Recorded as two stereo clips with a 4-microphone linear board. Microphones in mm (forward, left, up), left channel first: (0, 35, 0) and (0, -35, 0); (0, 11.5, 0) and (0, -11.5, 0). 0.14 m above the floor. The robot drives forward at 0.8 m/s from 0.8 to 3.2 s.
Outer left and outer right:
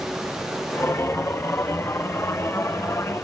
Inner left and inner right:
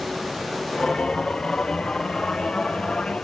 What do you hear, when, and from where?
Only background noise.